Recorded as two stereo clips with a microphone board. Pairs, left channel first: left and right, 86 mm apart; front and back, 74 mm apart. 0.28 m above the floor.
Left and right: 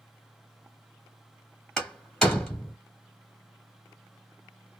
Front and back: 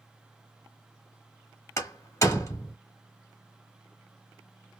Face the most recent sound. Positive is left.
turn(degrees=10)